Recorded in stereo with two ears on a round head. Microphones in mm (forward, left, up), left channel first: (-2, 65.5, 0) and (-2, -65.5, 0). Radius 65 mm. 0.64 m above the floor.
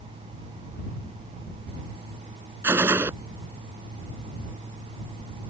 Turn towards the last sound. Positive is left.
turn(degrees=-15)  # may be behind; listen again after turning